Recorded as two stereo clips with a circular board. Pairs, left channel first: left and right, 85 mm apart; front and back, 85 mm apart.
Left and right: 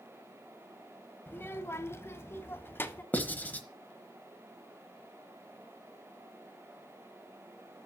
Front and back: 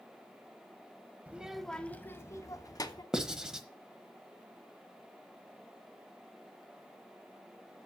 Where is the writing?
110° left, 1.1 m.